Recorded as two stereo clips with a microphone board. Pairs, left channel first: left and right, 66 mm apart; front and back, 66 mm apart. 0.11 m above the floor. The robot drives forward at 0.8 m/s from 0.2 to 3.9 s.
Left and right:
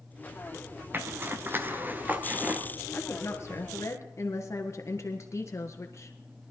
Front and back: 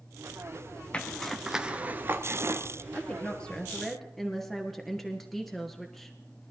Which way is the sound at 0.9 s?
60° right.